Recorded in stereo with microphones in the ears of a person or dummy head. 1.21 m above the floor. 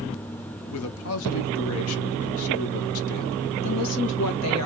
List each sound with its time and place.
0.7 s a man speaking: 75° left (ahead or behind), 0.8 m
3.6 s a woman speaking: 85° left, 1.4 m